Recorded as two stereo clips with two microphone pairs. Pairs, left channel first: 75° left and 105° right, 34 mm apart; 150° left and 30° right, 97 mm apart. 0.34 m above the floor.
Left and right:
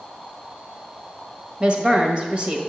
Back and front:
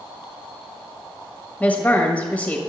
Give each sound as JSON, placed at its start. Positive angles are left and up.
{"t": 1.6, "sound": "a woman speaking", "azimuth_deg": -140, "distance_m": 1.4}